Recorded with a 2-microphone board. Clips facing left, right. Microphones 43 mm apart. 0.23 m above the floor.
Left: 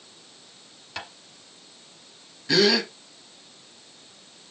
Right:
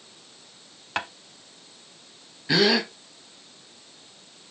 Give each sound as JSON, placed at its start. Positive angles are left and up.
{"t": 1.0, "sound": "tapping", "side_deg": -50, "distance_m": 1.0}
{"t": 2.5, "sound": "a gasp", "side_deg": -15, "distance_m": 1.3}